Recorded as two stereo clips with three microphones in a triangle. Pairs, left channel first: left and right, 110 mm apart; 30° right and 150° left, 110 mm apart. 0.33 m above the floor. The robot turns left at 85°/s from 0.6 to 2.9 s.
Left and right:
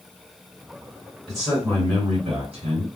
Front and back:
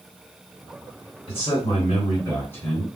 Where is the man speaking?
5° left, 2.5 m; by 2.9 s 130° right, 2.5 m.